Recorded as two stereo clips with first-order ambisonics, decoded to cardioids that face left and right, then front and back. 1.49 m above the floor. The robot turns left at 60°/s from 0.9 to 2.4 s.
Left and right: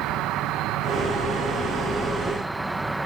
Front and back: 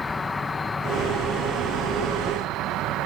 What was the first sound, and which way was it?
An insect, 75° right.